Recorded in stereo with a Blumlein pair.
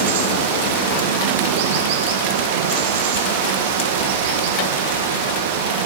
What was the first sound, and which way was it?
Running water, 50° right.